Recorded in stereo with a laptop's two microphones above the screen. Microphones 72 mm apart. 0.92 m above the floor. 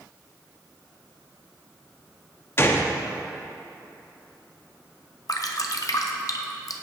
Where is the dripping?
50° left (ahead or behind), 0.5 m.